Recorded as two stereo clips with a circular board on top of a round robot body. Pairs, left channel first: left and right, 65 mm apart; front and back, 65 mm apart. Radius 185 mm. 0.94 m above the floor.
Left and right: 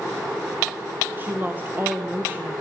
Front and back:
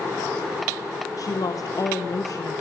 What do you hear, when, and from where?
1.2 s a woman speaking: 30° right, 1.3 m